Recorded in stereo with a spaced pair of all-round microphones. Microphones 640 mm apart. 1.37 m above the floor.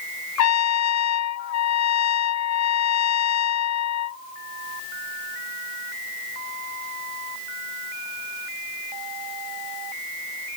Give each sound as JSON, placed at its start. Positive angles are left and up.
{"t": 0.4, "sound": "a trumpet", "side_deg": 80}